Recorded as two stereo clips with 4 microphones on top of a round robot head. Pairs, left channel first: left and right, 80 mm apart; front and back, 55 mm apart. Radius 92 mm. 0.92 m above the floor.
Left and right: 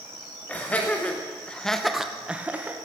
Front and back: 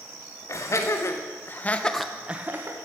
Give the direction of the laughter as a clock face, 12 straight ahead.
11 o'clock.